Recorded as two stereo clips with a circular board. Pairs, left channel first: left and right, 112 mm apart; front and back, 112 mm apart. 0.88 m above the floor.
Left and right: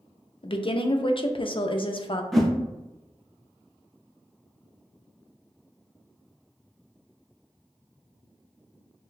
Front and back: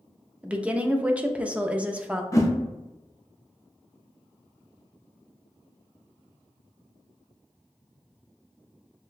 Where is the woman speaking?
105° left, 0.5 m.